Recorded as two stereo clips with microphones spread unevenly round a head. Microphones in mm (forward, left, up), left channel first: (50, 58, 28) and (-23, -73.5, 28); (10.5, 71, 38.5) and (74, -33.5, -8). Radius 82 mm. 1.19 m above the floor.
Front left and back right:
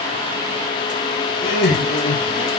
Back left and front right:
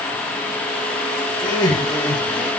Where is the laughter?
65° left, 1.7 m; by 2.5 s 40° left, 2 m.